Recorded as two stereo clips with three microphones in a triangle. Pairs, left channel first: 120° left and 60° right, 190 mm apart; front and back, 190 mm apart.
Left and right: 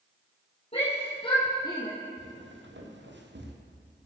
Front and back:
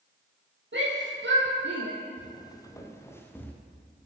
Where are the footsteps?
70° right, 3 m; by 3.5 s 80° right, 3 m.